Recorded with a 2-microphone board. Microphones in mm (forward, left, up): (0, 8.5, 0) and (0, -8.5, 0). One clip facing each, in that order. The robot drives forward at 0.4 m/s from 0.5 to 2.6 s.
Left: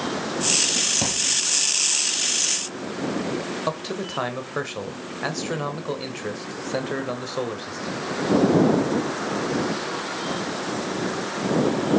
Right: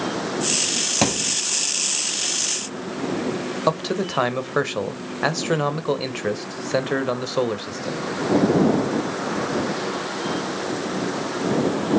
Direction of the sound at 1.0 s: 35° right (ahead or behind).